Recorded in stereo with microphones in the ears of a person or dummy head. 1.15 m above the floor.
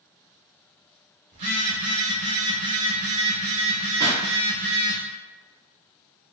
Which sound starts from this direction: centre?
A pop, at 4.0 s.